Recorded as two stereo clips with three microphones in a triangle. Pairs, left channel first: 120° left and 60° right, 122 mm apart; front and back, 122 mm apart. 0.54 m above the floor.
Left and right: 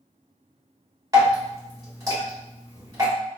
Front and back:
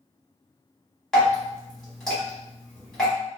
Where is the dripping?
80° right, 1.3 m.